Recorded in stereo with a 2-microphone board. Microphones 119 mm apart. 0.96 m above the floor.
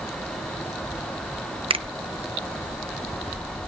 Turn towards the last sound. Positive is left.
turn(degrees=-50)  # may be behind; listen again after turning